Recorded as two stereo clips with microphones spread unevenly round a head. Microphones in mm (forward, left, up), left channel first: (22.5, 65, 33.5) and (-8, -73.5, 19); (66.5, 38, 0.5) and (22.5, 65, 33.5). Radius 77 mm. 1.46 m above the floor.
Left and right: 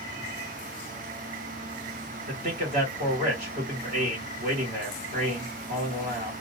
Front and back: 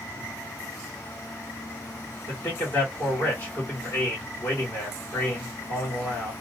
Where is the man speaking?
70° right, 2.5 m.